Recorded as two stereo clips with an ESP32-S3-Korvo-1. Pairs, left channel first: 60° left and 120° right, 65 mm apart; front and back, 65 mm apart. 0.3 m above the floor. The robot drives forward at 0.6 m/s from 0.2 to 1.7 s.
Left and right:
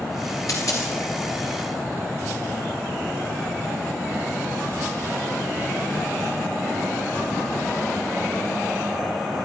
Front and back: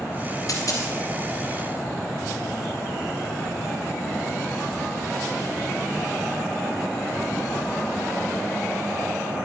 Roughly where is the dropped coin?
Ahead left.